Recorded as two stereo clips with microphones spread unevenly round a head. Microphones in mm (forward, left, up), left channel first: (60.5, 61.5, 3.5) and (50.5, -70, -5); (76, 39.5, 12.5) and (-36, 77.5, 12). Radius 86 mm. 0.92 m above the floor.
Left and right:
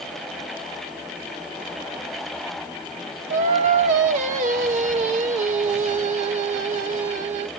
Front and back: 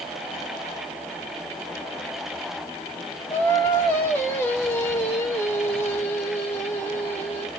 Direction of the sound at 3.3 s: 95° right.